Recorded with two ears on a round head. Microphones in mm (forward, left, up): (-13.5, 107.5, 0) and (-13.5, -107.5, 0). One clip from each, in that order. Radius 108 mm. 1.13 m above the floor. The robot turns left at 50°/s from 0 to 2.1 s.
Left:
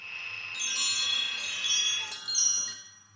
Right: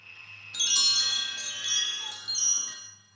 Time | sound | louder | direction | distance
0.5 | a chime | right 6 dB | 125° right | 0.5 m